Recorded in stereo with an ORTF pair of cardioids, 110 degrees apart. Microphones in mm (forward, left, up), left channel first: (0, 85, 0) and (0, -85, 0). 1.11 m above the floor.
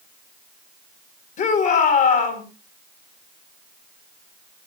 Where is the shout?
55° left, 4.5 m.